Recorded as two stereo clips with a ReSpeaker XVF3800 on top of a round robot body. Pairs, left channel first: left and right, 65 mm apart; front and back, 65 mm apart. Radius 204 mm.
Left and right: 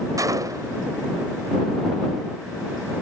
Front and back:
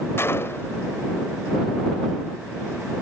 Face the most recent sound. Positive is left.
turn(degrees=-55)